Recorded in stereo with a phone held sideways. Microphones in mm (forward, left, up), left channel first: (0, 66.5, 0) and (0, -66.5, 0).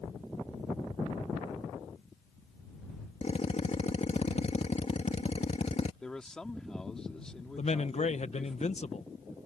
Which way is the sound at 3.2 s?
55° left (ahead or behind).